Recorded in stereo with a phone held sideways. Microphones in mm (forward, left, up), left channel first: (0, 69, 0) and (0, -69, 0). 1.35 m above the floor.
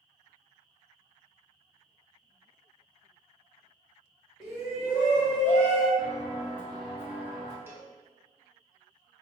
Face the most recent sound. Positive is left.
turn(degrees=-15)  # may be behind; listen again after turning